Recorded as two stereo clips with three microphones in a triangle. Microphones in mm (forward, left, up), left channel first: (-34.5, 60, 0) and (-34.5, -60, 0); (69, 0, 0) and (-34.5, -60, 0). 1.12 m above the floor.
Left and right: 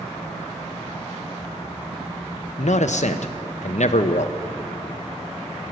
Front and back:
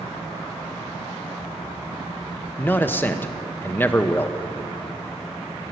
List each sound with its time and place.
2.6 s a man speaking: 100° left, 0.7 m